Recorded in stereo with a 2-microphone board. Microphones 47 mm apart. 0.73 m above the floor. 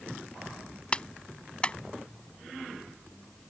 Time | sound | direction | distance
0.9 | a clap | 20° left (ahead or behind) | ?